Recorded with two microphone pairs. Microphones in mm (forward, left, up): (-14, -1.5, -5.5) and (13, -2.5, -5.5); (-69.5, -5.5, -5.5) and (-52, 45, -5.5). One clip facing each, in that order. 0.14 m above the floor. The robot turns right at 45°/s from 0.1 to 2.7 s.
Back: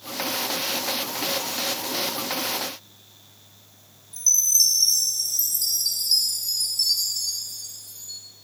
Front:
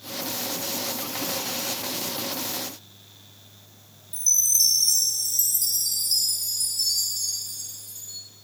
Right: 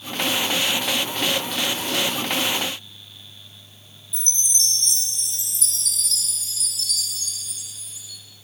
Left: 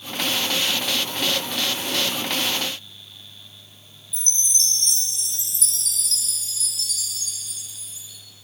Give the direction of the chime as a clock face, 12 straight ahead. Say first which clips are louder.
Back 2 dB, even; 8 o'clock.